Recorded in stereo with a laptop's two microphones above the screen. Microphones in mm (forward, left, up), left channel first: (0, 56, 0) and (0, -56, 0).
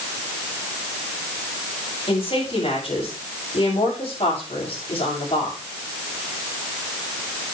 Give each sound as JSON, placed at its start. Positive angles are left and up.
{"t": 2.1, "sound": "a woman speaking", "side_deg": 60, "distance_m": 6.5}